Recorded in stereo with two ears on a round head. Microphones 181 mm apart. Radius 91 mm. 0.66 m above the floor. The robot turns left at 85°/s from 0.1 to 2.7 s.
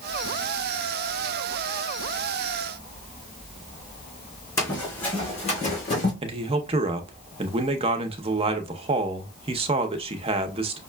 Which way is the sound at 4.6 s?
20° left (ahead or behind).